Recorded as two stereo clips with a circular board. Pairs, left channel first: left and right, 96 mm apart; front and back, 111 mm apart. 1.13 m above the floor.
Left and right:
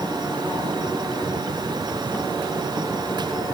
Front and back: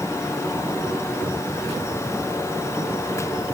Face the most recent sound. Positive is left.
No sound to turn to.